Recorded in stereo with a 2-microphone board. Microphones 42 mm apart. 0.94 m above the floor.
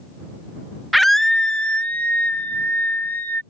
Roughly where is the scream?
Centre.